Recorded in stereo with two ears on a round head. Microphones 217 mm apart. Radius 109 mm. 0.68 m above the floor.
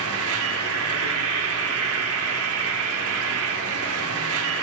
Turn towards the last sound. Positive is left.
turn(degrees=-70)  # may be behind; listen again after turning